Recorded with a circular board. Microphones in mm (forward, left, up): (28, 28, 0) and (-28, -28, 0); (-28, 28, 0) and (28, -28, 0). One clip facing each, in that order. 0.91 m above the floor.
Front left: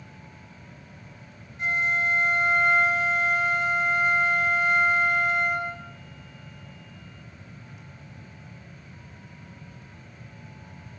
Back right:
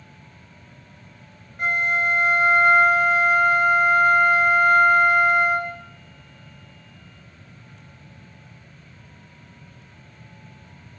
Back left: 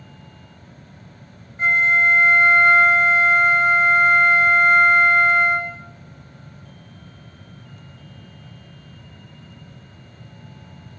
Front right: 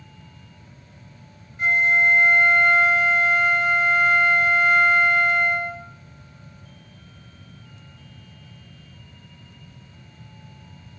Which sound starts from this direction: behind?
A flute, at 1.6 s.